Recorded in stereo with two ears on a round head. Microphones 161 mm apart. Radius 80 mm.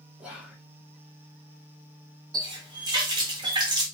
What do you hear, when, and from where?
0.2 s whispering: 5° right (ahead or behind), 0.7 m
2.3 s a running tap: 25° right (ahead or behind), 1.0 m